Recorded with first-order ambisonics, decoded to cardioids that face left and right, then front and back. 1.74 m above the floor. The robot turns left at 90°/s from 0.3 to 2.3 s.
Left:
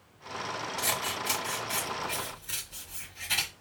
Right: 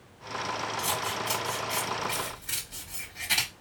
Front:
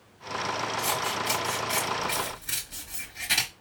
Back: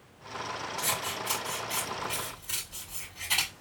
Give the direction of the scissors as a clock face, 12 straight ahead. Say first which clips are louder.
Left 2 dB, front 1 dB; 8 o'clock.